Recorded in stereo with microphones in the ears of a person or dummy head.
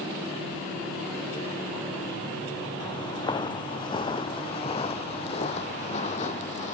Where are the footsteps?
25° left (ahead or behind); by 6.8 s 40° left (ahead or behind).